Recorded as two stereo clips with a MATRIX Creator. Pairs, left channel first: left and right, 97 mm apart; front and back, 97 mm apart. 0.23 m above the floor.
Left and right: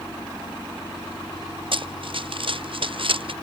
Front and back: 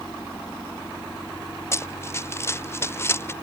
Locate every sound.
1.7 s running footsteps: 60° right; by 3.3 s 65° right